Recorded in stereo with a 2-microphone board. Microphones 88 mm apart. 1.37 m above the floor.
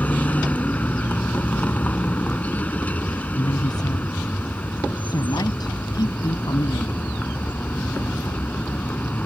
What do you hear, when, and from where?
0.0 s a vehicle: 15° left (ahead or behind)
3.4 s a woman speaking: 50° left (ahead or behind)